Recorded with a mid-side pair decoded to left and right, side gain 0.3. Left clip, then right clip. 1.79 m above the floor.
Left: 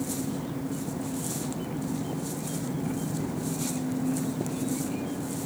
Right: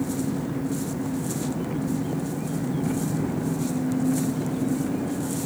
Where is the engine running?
50° right.